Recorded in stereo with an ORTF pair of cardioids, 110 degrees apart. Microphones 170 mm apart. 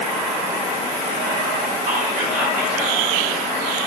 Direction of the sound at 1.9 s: 55° right.